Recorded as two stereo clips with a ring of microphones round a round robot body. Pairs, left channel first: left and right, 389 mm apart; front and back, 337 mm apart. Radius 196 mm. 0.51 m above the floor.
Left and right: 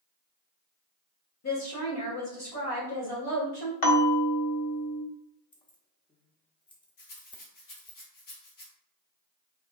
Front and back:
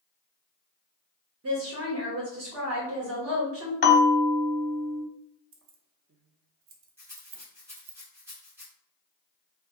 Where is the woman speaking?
135° left, 1.4 m.